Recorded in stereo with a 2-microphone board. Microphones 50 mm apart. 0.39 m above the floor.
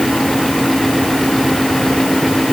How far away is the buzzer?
No buzzer in this recording.